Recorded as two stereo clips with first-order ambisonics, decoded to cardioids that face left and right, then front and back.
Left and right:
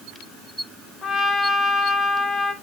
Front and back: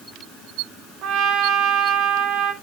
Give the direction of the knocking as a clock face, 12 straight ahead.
No knocking in this recording.